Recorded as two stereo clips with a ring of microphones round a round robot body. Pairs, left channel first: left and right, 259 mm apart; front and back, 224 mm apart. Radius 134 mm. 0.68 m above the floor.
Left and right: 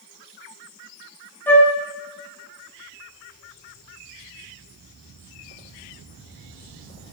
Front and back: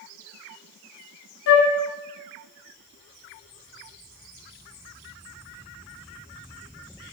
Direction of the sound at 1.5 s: 10° left.